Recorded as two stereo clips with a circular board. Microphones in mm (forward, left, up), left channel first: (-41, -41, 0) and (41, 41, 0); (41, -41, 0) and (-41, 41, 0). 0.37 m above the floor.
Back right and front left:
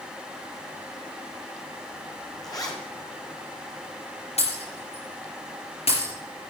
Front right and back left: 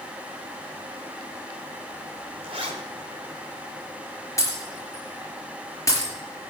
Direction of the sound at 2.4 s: 170° left.